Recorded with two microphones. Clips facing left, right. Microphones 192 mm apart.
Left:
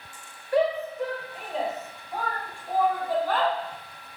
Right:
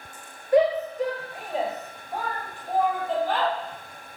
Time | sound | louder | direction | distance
0.5 | a shout | right 4 dB | 20° right (ahead or behind) | 3.5 m